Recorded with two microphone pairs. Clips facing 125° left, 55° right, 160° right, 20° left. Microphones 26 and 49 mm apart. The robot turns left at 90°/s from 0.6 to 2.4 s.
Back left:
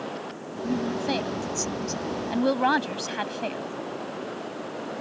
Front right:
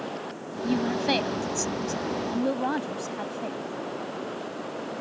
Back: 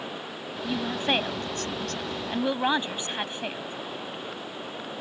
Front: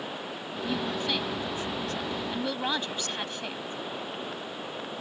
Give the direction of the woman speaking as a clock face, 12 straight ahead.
2 o'clock.